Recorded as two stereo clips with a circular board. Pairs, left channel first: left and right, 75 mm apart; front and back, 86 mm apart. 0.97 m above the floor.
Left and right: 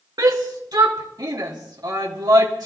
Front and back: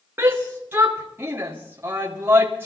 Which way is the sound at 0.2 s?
115° right.